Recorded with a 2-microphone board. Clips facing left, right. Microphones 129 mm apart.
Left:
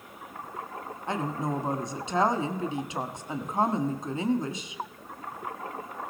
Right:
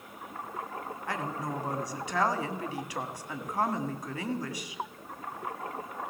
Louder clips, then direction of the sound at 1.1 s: Left 5 dB; 25° left (ahead or behind).